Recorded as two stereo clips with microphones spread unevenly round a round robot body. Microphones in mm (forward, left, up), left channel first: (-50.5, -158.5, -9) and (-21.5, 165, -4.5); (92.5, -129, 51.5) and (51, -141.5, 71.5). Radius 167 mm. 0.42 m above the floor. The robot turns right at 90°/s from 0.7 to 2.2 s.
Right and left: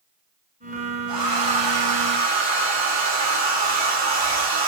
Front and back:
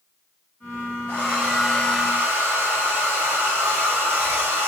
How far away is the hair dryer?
About 1.1 m.